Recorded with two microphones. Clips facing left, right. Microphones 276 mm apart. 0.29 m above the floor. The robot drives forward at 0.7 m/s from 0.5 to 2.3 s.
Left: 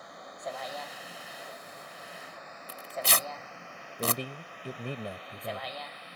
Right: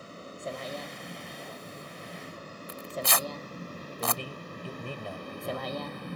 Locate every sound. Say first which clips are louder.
0.0 s a vehicle: right 3 dB; 35° right (ahead or behind); by 6.2 s 55° right (ahead or behind)
2.7 s tearing paper: right 2 dB; 35° left (ahead or behind)
4.0 s a man speaking: left 3 dB; 20° left (ahead or behind)